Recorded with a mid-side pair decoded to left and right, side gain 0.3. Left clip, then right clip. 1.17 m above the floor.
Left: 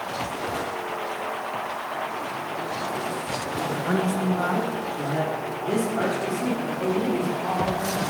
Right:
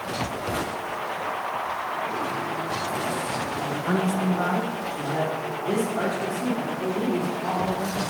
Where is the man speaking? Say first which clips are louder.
Left 2 dB; 15° right, 1.0 m; by 8.0 s 10° left, 4.5 m.